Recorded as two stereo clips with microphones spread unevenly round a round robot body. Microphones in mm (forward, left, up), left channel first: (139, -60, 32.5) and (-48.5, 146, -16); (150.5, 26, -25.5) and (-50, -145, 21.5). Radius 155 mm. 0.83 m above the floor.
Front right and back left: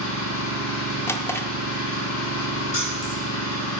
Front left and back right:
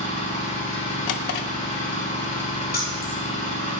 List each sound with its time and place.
0.0 s an engine running: 25° right, 4.5 m
1.1 s a drawer: 30° left, 0.7 m
2.7 s keys jangling: 15° right, 3 m